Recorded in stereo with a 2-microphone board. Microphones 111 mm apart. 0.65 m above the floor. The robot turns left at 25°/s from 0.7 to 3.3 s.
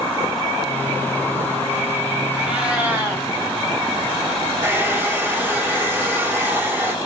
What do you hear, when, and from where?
2.4 s a cat meowing: 5° right (ahead or behind), 2 m; by 3.3 s 30° right (ahead or behind), 2 m
4.6 s a hair dryer: 20° right (ahead or behind), 1.5 m